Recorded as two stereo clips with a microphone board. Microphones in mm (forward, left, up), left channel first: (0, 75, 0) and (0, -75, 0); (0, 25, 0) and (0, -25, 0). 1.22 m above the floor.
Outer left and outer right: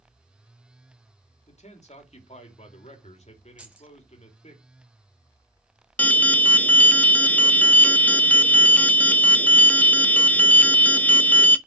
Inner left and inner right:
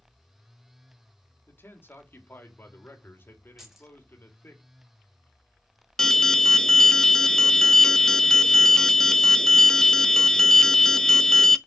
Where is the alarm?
10° left (ahead or behind), 0.7 m.